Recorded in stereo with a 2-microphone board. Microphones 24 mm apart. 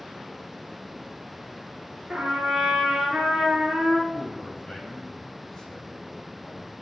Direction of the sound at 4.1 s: 15° left (ahead or behind).